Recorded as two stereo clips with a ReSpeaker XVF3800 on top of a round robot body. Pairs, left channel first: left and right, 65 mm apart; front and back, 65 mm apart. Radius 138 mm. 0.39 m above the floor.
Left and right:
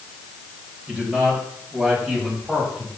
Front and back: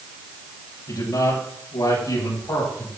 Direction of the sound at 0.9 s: 20° right.